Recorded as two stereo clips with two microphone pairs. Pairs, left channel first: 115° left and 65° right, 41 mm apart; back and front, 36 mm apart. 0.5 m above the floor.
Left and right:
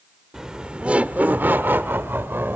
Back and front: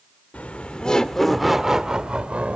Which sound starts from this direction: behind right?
Laughter, at 0.3 s.